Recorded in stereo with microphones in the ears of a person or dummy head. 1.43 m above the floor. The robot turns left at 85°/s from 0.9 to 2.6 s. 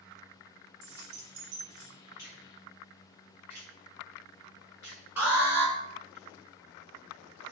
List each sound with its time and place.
0.8 s keys jangling: 50° right (ahead or behind), 0.9 m; by 1.9 s 35° right (ahead or behind), 0.9 m
2.2 s a finger snap: 20° left (ahead or behind), 1.6 m; by 6.2 s 15° right (ahead or behind), 1.6 m
5.2 s an alarm: 10° right (ahead or behind), 1.6 m